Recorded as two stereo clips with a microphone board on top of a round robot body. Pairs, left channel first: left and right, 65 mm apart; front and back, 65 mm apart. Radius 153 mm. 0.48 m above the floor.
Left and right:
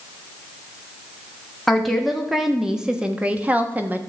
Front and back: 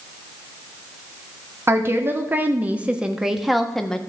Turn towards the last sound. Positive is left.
turn(degrees=-70)